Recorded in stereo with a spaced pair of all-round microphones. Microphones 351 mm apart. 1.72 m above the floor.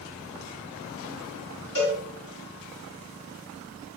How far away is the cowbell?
About 4.5 m.